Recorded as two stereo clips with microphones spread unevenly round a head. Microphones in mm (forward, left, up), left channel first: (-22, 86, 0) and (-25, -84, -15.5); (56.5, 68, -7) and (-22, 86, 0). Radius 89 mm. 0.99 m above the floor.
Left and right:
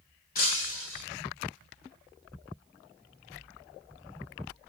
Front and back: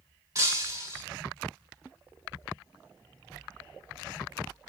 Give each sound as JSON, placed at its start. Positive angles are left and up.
{"t": 0.3, "sound": "breaking glass", "azimuth_deg": 125, "distance_m": 2.0}